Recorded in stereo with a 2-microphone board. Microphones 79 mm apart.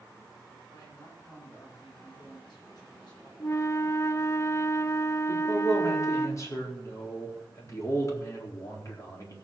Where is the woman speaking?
45° left (ahead or behind), 10 m; by 3.3 s 55° left (ahead or behind), 9.5 m.